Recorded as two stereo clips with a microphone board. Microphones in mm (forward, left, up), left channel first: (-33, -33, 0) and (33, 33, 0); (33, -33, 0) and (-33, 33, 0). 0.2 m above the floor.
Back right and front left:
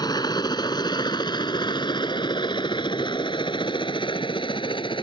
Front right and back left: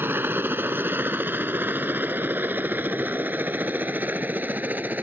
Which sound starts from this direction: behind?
A helicopter, at 0.0 s.